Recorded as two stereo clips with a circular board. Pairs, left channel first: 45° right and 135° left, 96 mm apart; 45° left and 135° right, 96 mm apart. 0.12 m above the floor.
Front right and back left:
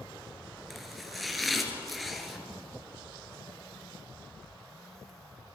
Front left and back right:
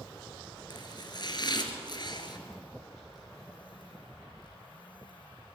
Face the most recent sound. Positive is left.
turn(degrees=45)